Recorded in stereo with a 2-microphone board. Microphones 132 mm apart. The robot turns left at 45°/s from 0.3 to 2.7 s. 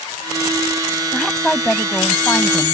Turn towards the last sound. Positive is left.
turn(degrees=20)  # may be behind; listen again after turning